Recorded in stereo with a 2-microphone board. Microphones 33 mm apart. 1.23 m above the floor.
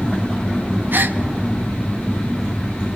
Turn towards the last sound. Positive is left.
turn(degrees=-75)  # may be behind; listen again after turning